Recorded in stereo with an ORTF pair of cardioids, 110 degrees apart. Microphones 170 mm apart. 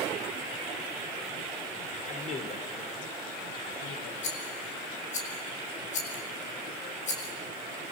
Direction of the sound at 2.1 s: 45° left.